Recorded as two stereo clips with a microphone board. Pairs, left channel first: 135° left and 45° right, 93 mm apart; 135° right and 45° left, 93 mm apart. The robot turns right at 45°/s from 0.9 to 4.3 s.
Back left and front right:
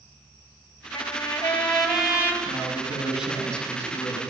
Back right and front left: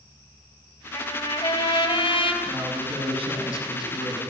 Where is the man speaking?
5° left, 8 m; by 4.2 s 85° left, 8 m.